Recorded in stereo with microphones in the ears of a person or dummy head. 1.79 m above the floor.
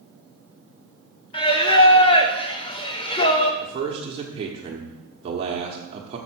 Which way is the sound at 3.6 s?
30° right (ahead or behind).